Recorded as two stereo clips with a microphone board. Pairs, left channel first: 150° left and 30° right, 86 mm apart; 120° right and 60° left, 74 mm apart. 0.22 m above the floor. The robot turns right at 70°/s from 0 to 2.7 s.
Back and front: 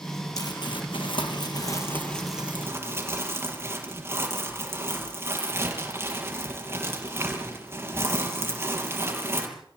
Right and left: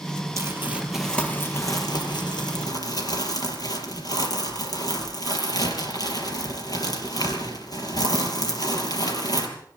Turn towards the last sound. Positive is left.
turn(degrees=-90)